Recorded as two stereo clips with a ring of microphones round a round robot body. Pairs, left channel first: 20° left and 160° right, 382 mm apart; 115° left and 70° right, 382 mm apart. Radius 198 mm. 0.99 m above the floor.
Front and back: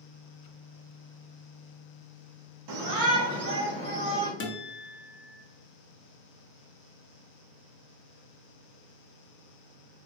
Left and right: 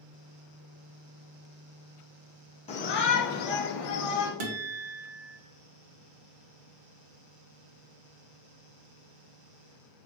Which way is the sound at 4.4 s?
40° right.